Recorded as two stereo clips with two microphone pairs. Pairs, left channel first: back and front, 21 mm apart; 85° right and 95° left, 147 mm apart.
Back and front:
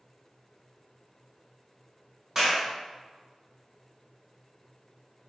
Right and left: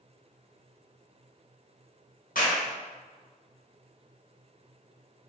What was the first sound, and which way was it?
A clap, 70° right.